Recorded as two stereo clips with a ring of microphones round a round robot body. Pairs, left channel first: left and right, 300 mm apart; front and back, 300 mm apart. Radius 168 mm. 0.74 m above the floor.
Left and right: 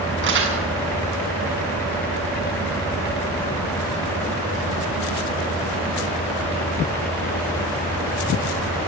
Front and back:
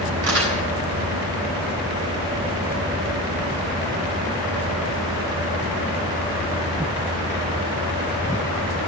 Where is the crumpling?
140° right, 8 m.